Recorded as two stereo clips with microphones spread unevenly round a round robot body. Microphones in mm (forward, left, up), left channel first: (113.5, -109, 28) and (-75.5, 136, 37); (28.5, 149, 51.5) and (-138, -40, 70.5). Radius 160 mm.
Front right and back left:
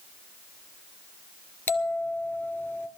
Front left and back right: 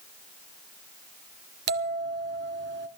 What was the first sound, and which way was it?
A bell, 130° right.